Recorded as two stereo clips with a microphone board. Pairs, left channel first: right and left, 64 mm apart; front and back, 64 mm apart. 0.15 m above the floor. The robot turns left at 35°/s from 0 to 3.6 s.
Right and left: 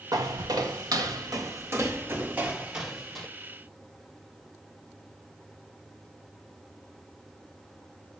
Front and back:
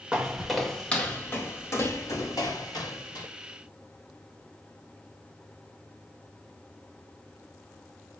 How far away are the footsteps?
About 1.2 m.